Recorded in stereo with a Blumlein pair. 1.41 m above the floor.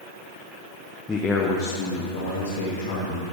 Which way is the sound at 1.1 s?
10° left.